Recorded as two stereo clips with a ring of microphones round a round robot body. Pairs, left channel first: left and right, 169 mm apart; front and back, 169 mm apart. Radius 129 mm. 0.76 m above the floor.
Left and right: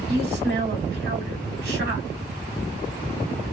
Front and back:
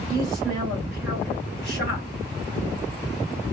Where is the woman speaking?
90° right, 3 m.